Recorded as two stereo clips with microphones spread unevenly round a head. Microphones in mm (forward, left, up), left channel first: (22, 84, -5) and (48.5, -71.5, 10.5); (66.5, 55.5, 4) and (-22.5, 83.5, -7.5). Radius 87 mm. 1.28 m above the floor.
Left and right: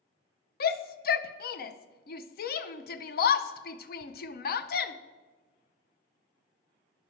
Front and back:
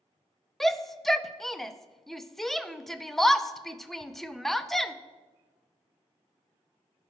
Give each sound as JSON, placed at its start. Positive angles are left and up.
{"t": 0.6, "sound": "a shout", "azimuth_deg": 70, "distance_m": 0.6}